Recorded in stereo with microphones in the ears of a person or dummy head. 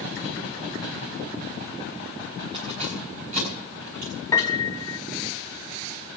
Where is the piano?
15° left (ahead or behind), 0.6 m.